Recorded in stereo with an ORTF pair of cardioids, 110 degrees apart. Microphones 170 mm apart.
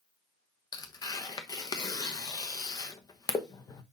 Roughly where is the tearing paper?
Ahead left.